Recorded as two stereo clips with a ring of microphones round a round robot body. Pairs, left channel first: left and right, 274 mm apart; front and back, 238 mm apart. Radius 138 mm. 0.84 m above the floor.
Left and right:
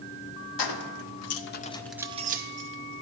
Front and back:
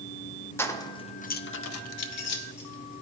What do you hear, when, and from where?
0.6 s keys jangling: 80° left, 0.9 m; by 3.0 s 50° right, 1.0 m